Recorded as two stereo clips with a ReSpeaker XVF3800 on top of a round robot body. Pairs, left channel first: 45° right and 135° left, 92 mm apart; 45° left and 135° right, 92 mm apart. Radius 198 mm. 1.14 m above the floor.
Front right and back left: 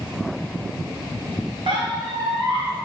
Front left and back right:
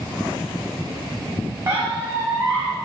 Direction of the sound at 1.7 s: 165° left.